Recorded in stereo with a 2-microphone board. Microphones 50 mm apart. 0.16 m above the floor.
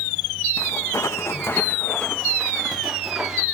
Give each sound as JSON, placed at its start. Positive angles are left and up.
{"t": 0.6, "sound": "footsteps", "side_deg": 80, "distance_m": 1.0}